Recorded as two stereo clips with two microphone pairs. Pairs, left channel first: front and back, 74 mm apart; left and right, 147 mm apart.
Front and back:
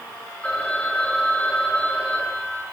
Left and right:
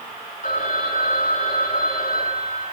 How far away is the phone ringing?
About 2 m.